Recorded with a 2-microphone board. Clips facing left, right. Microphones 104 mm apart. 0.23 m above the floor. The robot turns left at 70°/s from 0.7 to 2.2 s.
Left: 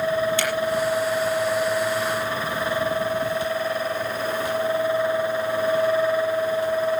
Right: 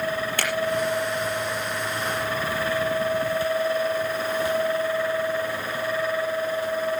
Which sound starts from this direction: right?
A finger snap, at 0.4 s.